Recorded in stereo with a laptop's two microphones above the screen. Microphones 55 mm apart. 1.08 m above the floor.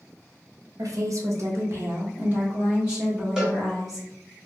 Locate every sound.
0.8 s a woman speaking: 75° right (ahead or behind), 0.7 m; by 4.1 s 5° right (ahead or behind), 1.7 m
3.4 s a cowbell: 10° right (ahead or behind), 0.8 m